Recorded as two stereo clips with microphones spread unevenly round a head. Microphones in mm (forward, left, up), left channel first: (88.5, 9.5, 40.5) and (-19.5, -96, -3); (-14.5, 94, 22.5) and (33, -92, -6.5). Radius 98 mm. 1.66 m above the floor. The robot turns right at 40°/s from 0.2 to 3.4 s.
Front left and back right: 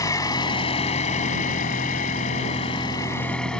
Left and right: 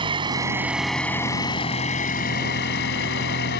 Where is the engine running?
10° right; by 3.6 s 120° left.